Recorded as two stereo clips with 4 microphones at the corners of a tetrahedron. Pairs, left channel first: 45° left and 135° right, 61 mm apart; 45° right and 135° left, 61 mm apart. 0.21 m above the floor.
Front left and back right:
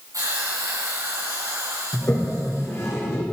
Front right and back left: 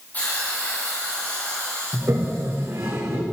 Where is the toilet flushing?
90° left, 4 m.